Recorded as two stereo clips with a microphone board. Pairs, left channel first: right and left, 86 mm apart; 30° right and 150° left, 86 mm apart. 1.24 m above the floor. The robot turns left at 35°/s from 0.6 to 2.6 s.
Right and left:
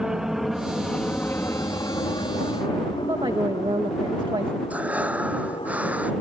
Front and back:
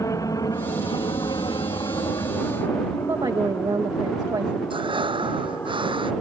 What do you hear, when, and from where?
0.0 s an aircraft: 10° left; by 6.2 s 90° right
3.0 s a woman speaking: 115° left
4.7 s breathing: 165° left